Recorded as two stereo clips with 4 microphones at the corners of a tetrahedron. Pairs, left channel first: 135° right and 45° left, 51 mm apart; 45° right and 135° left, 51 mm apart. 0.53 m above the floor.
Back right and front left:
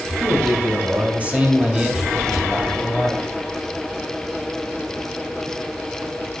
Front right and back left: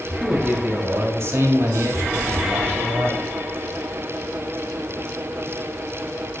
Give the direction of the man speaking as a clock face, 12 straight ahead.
9 o'clock.